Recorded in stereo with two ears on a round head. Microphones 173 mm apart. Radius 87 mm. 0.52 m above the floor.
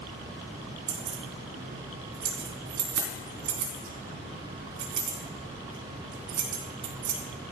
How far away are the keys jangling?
About 4 m.